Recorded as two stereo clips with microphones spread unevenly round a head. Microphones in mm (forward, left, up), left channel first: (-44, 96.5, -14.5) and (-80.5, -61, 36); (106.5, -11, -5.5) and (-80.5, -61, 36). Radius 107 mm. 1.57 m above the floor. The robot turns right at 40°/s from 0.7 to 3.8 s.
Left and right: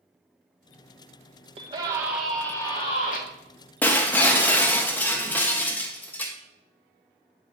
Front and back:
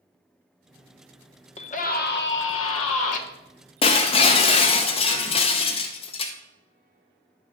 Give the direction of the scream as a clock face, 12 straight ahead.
2 o'clock.